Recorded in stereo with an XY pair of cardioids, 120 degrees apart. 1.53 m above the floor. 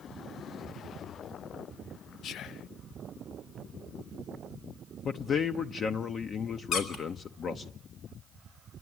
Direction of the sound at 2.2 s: 60° left.